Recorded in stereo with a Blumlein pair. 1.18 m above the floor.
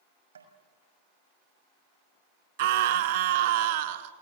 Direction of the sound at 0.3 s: 70° right.